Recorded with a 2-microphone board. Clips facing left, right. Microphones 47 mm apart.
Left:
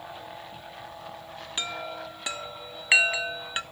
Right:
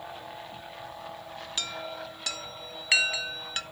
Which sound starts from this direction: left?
A chime, at 1.6 s.